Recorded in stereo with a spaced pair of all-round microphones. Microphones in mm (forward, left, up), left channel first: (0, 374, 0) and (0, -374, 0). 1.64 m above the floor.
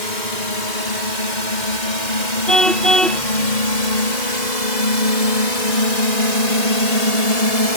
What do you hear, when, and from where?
0.0 s a drone: 80° left; by 7.8 s 50° left (ahead or behind)
2.5 s a car horn: centre (ahead or behind)